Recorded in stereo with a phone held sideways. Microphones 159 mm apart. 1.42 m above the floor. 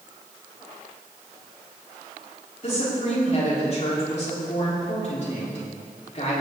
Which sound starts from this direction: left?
A woman speaking, at 2.6 s.